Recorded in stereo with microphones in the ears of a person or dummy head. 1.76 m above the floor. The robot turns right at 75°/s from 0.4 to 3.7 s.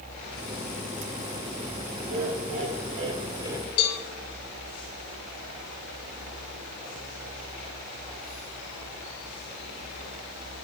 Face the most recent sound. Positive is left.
turn(degrees=50)  # may be behind; listen again after turning